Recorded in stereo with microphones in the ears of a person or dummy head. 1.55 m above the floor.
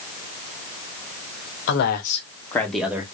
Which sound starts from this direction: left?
A man speaking, at 1.7 s.